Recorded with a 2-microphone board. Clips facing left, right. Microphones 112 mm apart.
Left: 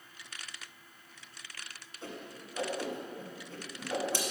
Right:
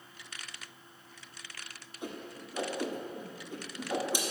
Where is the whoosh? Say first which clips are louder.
Right 3 dB; 15° right (ahead or behind), 1.2 m.